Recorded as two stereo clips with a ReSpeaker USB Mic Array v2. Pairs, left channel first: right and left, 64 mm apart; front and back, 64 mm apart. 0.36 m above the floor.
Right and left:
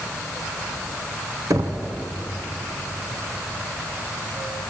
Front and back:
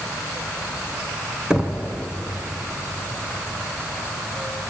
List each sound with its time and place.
1.5 s knocking: 105° left, 2.5 m